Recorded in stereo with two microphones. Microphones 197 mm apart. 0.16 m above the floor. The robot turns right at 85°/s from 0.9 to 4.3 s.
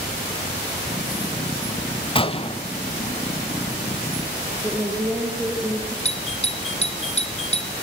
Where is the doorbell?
30° left (ahead or behind), 2 m.